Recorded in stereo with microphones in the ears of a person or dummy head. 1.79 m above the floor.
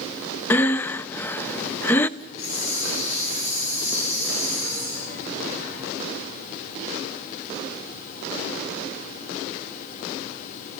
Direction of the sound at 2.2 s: 70° left (ahead or behind).